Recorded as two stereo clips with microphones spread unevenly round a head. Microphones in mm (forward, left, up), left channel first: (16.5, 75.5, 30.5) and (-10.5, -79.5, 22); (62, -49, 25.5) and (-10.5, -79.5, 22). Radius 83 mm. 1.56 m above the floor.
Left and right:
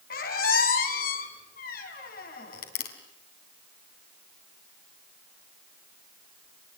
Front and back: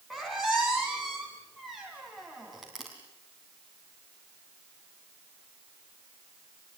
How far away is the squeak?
About 3.5 m.